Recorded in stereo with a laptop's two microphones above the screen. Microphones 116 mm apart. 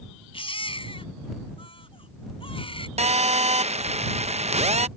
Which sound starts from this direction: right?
A phone buzzing, at 3.0 s.